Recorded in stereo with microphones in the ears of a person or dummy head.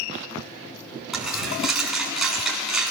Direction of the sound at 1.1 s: Centre (ahead or behind).